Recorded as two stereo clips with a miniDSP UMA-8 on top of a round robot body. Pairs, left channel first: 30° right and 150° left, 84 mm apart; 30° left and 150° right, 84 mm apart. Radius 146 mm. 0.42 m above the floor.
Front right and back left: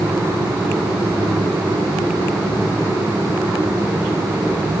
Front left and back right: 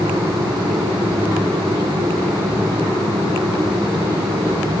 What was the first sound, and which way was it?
Only background noise.